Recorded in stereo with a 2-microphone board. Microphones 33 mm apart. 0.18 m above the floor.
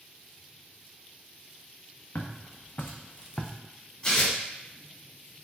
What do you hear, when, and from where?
2.1 s footsteps: 80° left, 1.0 m; by 3.5 s 25° left (ahead or behind), 0.7 m
4.0 s tearing paper: 25° left (ahead or behind), 1.7 m